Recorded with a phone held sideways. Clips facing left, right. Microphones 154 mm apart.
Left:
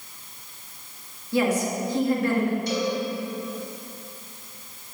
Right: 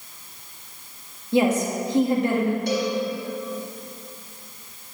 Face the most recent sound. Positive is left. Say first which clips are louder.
# right 2 dB
turn(degrees=-65)  # may be behind; listen again after turning